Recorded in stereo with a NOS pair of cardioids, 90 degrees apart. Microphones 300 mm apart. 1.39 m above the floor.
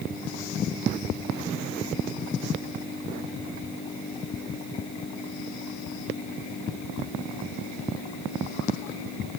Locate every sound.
Only background noise.